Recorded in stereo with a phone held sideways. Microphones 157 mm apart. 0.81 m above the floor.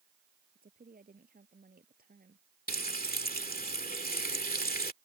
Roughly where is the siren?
No siren in this recording.